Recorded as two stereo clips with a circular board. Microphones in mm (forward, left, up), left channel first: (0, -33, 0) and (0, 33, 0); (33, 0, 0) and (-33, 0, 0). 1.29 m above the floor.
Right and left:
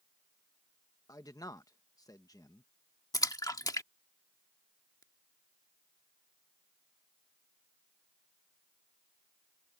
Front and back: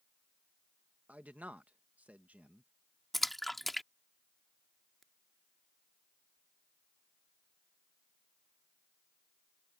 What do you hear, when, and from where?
1.1 s a man speaking: 110° right
3.1 s a splash: 90° right